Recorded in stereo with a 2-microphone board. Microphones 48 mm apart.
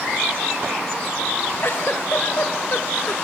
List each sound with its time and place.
1.6 s a giggle: 55° left (ahead or behind), 0.7 m